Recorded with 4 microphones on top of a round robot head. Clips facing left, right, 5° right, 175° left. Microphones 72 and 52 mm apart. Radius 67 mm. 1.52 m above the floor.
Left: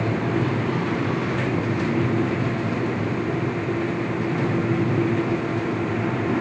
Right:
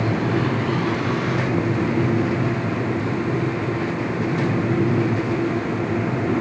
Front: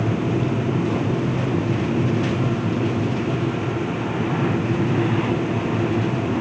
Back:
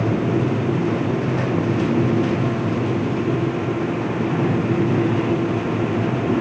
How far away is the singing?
I don't hear singing.